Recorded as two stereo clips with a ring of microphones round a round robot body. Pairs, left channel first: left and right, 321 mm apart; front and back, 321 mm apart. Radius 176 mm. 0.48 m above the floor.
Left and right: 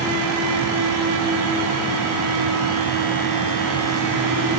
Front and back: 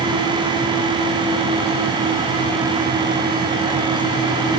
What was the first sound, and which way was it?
Only background noise.